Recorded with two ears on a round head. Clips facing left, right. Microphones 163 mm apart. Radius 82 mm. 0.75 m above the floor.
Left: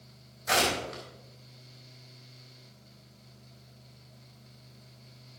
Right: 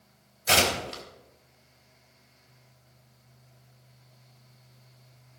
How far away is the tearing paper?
About 3.5 m.